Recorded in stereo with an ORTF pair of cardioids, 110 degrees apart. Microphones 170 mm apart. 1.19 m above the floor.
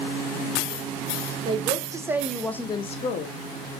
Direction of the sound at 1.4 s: 30° right.